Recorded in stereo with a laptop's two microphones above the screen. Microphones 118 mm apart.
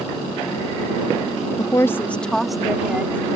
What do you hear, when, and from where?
1.6 s a woman speaking: 30° left (ahead or behind); by 3.4 s 20° right (ahead or behind)